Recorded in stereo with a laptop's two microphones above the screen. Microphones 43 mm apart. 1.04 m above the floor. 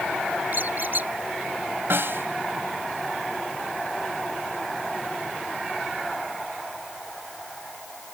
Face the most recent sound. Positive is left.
turn(degrees=-60)  # may be behind; listen again after turning